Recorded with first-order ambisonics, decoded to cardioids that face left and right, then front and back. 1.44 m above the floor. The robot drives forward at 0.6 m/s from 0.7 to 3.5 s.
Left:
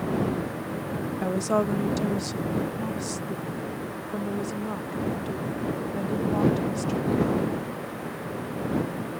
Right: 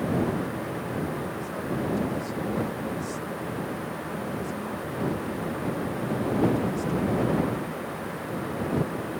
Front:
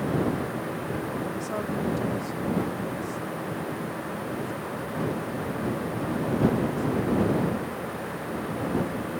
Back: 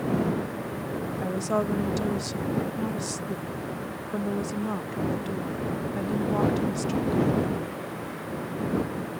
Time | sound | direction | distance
1.2 | a woman speaking | 105° left | ?